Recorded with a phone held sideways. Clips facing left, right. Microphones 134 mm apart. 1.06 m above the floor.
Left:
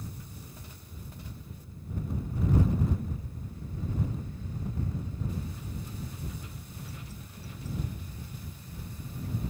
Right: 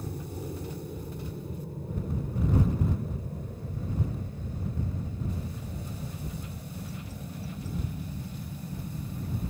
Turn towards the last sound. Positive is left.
turn(degrees=-65)  # may be behind; listen again after turning